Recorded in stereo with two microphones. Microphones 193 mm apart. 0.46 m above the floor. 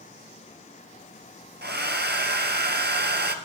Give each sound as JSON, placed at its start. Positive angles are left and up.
{"t": 1.6, "sound": "a hair dryer", "side_deg": -60, "distance_m": 1.5}